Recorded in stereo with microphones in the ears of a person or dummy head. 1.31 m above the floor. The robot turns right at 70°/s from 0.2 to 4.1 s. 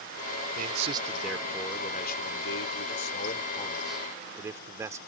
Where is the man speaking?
60° right; by 5.0 s 170° right.